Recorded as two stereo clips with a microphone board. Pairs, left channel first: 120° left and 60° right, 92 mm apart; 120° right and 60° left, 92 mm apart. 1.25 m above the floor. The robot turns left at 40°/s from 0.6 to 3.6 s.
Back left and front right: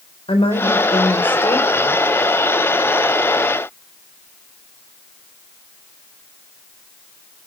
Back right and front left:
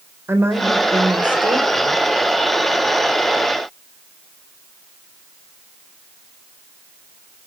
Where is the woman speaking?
125° left, 4 m; by 2.0 s 65° left, 4 m.